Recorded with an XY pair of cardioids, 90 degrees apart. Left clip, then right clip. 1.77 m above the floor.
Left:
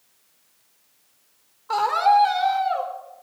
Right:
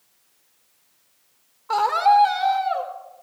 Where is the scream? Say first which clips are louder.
Right 1 dB; 25° right, 3 m.